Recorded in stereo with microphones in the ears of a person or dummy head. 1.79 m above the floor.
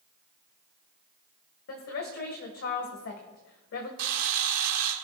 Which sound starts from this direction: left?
A woman speaking, at 1.7 s.